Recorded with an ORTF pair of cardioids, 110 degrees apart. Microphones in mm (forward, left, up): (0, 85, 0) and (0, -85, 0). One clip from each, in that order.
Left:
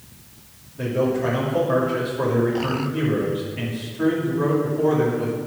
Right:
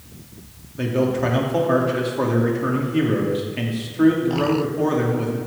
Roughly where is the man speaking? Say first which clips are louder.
Right 1 dB; ahead right.